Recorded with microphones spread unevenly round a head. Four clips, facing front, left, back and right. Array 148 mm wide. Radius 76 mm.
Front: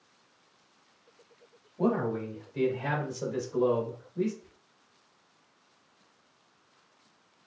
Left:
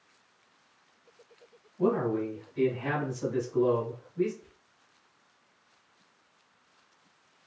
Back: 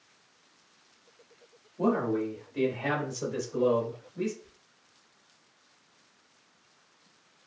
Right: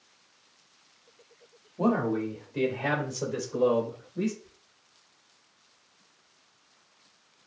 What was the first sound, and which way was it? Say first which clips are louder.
A man speaking: right 1 dB, back 1 dB; 85° right.